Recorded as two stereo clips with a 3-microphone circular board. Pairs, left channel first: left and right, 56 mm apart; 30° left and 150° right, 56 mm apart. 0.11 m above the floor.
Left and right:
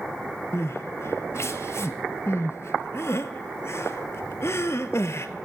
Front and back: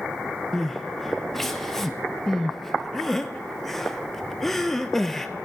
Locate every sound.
0.5 s crying: 115° left, 0.7 m